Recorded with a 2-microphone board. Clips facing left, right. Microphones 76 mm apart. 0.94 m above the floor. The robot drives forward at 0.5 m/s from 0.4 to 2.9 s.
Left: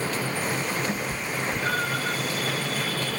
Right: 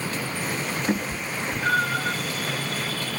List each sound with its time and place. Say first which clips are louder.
0.9 s a cat meowing: right 2 dB; 35° right (ahead or behind), 0.6 m; by 2.2 s 15° right (ahead or behind), 1.2 m